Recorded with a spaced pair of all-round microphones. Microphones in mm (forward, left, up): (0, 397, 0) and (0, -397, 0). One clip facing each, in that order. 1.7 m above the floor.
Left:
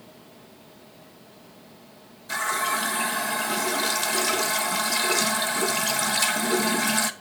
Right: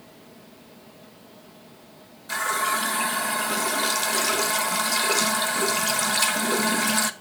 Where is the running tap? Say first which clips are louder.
Right 1 dB; 5° right (ahead or behind), 1.1 m.